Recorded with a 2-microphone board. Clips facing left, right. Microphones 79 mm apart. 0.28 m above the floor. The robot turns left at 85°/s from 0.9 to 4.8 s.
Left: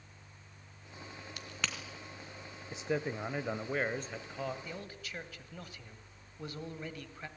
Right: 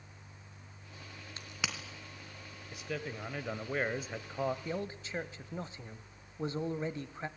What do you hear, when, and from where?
1.4 s a crack: 30° right (ahead or behind), 3 m; by 1.8 s centre (ahead or behind), 3 m
2.7 s a man speaking: 25° left (ahead or behind), 0.9 m; by 4.5 s 20° right (ahead or behind), 0.9 m
4.7 s a man speaking: 35° right (ahead or behind), 1.1 m; by 7.3 s 25° right (ahead or behind), 1.1 m